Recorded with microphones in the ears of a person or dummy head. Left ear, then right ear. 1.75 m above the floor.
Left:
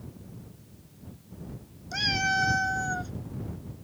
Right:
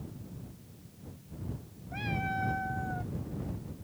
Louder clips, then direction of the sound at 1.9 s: Left 9 dB; 75° left (ahead or behind).